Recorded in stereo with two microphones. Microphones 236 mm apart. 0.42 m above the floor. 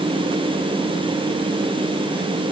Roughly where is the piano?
No piano in this recording.